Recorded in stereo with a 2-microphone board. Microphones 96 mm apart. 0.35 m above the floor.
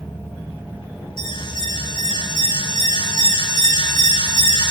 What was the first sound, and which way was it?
An alarm, 55° left (ahead or behind).